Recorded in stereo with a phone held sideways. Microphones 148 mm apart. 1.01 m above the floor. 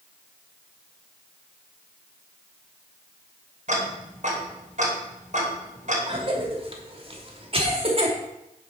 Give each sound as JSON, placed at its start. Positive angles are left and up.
{"t": 3.7, "sound": "ticking", "side_deg": -55, "distance_m": 3.5}
{"t": 6.1, "sound": "a cough", "side_deg": -40, "distance_m": 3.0}